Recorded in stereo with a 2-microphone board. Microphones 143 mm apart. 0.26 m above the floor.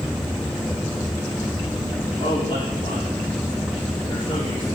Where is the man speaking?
30° left (ahead or behind), 5 m.